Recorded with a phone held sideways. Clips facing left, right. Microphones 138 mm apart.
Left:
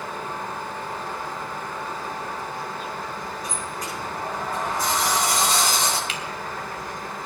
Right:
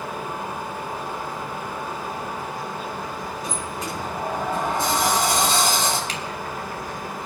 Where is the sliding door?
25° right (ahead or behind), 8 m.